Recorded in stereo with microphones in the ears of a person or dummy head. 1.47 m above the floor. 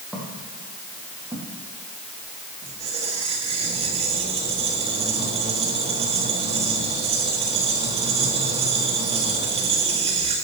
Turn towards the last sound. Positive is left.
turn(degrees=-25)  # may be behind; listen again after turning